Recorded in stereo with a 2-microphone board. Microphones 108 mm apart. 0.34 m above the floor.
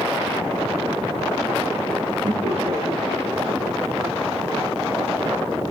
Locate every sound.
2.2 s laughter: 75° right (ahead or behind), 4.5 m; by 3.5 s 70° right (ahead or behind), 5.5 m